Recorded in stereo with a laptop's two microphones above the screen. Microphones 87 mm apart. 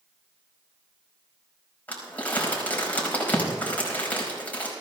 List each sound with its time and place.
1.9 s crumpling: 20° left (ahead or behind), 5 m